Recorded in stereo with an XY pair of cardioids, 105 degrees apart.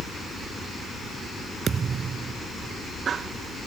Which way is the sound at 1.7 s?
45° right.